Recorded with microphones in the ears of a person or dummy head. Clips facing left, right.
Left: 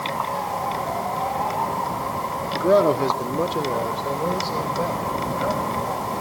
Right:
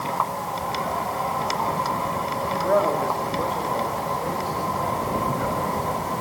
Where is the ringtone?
I don't hear a ringtone.